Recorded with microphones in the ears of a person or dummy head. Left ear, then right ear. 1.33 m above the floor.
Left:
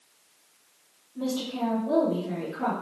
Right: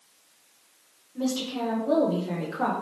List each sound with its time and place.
1.1 s a woman speaking: 55° right (ahead or behind), 0.8 m; by 2.7 s 50° right (ahead or behind), 0.6 m